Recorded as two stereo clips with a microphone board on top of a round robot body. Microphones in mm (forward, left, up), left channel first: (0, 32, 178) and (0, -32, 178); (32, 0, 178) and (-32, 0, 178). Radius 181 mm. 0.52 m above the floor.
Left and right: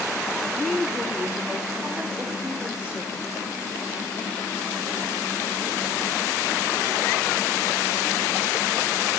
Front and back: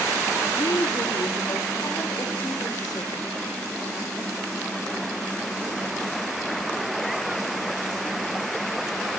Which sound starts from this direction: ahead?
A woman speaking, at 0.5 s.